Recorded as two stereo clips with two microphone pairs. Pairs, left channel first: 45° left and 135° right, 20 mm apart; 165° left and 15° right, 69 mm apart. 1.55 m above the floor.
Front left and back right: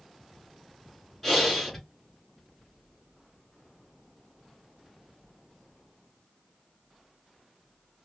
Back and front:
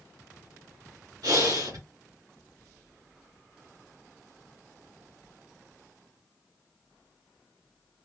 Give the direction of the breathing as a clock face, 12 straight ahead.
1 o'clock.